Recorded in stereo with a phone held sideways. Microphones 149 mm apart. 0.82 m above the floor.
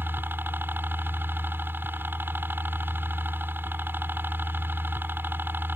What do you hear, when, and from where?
0.0 s a helicopter: 15° right (ahead or behind)